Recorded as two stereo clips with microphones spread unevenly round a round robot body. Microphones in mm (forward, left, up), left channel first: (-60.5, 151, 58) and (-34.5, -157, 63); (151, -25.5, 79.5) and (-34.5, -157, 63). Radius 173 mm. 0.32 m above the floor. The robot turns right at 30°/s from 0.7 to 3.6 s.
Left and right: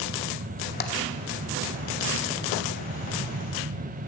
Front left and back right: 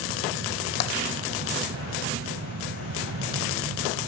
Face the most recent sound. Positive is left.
turn(degrees=120)